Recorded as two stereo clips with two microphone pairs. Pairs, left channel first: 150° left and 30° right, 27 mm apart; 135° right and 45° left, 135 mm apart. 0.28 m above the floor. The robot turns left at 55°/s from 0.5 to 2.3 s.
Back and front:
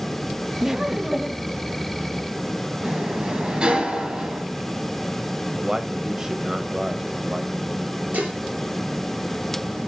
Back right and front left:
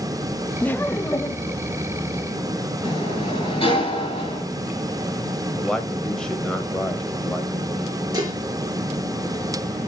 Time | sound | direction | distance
0.6 | laughter | 75° right | 0.9 m
2.8 | a sliding door | 85° right | 3.5 m
5.6 | a man speaking | 60° right | 1.1 m
8.1 | dishes clattering | 15° right | 3.5 m